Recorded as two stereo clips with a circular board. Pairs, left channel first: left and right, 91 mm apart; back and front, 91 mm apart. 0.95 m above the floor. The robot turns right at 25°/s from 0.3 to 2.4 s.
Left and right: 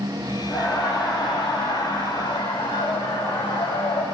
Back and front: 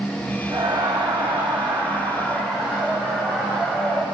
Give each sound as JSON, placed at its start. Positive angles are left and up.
{"t": 0.5, "sound": "laughter", "azimuth_deg": 40, "distance_m": 4.0}